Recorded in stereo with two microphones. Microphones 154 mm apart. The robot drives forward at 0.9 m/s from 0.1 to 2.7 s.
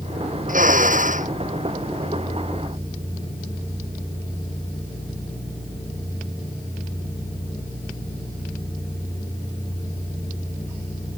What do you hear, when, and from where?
0.5 s a drill: 60° right (ahead or behind); by 1.3 s 55° right (ahead or behind)